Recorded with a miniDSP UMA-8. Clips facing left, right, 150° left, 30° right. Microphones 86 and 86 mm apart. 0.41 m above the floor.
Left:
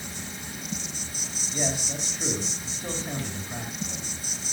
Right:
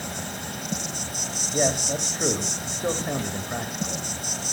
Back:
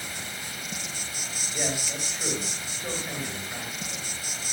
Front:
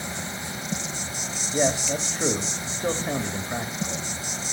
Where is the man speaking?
70° right, 2.0 m.